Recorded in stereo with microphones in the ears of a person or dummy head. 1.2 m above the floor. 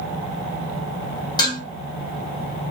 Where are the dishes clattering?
20° left (ahead or behind), 1.2 m.